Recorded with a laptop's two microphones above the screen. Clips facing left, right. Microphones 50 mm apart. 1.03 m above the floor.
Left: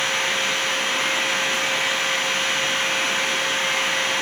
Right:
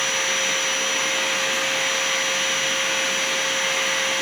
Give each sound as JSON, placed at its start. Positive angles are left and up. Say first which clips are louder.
{"t": 0.0, "sound": "a machine running", "louder": "left 1 dB", "side_deg": 45, "distance_m": 3.0}